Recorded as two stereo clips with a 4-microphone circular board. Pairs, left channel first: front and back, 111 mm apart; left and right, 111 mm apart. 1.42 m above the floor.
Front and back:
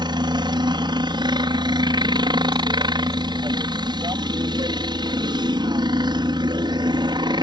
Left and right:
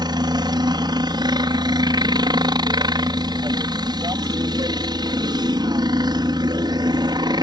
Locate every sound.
0.0 s a helicopter: 135° right